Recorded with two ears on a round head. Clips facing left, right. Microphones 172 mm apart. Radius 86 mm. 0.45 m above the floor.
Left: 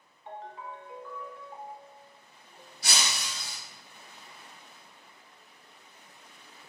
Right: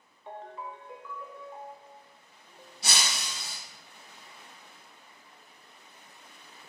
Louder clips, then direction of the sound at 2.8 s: Even; 25° right (ahead or behind).